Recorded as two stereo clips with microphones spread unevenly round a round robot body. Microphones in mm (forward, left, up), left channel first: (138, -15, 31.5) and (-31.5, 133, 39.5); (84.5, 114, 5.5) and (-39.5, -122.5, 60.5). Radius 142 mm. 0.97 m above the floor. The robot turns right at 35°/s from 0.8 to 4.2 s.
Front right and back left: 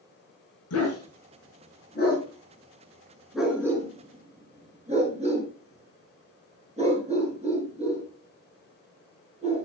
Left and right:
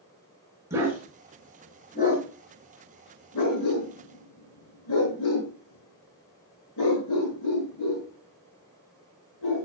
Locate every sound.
0.7 s a dog barking: 40° right, 5.5 m; by 9.7 s 80° left, 5.5 m